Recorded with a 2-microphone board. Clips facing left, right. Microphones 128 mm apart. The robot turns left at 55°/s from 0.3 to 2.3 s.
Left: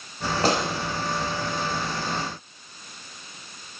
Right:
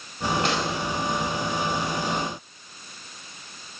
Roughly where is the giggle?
I don't hear a giggle.